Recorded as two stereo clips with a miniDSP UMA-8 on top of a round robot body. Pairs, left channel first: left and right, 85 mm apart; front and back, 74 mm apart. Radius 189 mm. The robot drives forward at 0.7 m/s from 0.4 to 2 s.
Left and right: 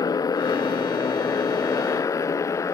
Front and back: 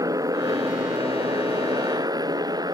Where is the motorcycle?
135° left; by 2.8 s 145° left.